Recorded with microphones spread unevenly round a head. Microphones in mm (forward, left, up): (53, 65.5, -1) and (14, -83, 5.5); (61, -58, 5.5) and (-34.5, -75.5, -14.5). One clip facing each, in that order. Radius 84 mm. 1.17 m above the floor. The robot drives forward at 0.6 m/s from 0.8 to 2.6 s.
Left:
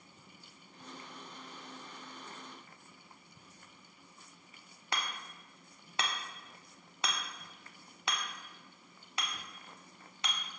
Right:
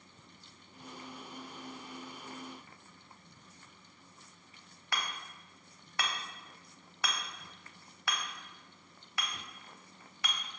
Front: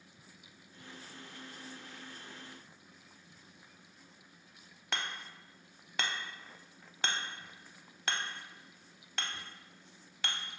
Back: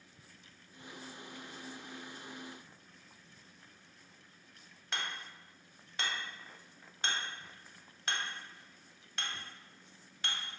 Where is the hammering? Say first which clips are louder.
Even, front 1 dB; 10° left, 0.5 m.